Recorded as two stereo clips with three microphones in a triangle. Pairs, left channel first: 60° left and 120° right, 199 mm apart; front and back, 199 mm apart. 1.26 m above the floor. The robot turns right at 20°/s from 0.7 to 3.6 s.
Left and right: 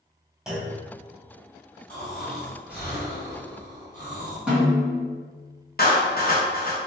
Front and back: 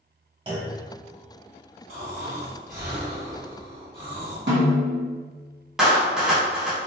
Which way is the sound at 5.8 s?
95° left.